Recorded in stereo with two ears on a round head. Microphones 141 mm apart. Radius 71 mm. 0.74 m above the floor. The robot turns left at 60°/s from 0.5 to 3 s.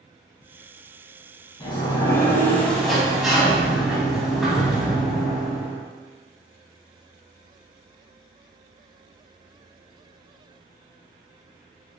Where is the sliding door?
30° left (ahead or behind), 0.6 m; by 5.8 s centre (ahead or behind), 0.6 m.